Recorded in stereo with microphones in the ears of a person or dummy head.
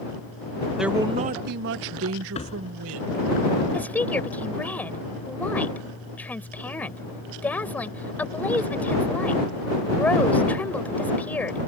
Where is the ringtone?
No ringtone in this recording.